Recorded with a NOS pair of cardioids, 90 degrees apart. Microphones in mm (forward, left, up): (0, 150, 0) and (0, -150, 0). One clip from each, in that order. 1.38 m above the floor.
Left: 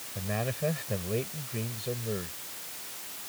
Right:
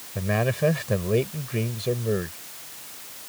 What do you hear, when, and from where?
0.1 s a man speaking: 55° right